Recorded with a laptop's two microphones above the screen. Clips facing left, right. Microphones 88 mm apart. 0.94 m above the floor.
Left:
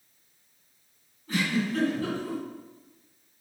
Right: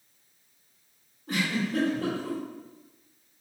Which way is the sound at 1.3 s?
70° right (ahead or behind).